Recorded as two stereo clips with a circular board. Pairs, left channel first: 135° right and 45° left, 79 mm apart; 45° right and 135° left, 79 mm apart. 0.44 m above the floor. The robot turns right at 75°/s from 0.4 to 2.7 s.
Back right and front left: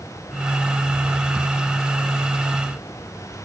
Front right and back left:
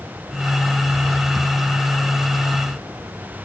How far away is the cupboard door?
I don't hear a cupboard door.